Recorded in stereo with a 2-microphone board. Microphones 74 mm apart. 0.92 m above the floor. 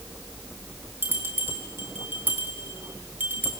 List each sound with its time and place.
1.0 s a bell: 30° right (ahead or behind), 4 m